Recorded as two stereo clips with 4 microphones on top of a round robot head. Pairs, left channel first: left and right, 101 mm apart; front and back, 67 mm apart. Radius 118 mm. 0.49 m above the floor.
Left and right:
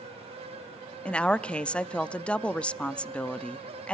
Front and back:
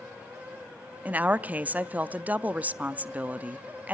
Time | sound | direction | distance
1.1 | a woman speaking | 155° left | 0.7 m